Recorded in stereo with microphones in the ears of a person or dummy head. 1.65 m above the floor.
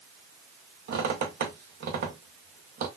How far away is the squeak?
About 0.8 m.